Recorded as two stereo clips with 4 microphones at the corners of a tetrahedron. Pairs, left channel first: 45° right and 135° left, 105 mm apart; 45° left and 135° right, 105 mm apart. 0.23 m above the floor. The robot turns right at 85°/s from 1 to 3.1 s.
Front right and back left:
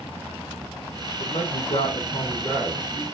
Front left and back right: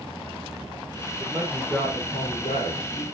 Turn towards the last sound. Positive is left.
turn(degrees=85)